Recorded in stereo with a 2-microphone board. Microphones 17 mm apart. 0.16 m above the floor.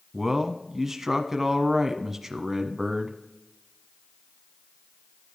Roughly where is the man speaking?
Centre.